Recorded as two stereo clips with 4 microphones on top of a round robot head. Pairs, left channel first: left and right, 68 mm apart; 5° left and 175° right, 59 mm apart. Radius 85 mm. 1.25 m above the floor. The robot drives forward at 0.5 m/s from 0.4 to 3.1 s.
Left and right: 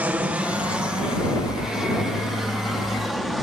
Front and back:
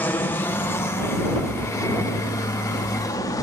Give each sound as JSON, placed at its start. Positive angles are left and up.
{"t": 0.0, "sound": "an aircraft", "azimuth_deg": -35}